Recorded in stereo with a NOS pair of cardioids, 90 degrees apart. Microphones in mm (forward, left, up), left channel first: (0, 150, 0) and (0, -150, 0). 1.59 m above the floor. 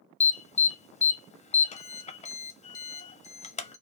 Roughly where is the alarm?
Ahead.